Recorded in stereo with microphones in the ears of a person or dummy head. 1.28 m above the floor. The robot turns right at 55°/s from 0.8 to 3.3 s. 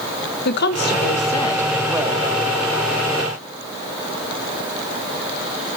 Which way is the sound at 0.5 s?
120° left.